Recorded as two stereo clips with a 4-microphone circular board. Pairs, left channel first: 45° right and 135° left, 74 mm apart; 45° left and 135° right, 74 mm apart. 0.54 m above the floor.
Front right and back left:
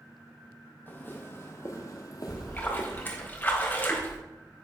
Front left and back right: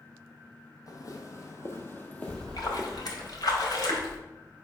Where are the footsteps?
15° left, 1.3 m; by 3.3 s 50° right, 1.2 m.